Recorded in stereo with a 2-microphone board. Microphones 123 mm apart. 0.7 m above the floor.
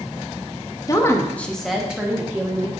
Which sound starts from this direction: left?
A woman speaking, at 0.9 s.